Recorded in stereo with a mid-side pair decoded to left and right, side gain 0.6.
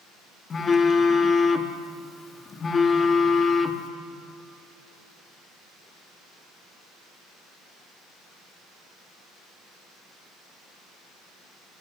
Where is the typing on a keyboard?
No typing on a keyboard in this recording.